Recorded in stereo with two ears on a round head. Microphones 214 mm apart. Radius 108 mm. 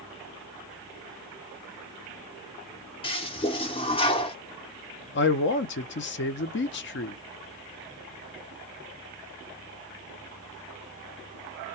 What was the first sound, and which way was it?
A toilet flushing, 25° left (ahead or behind).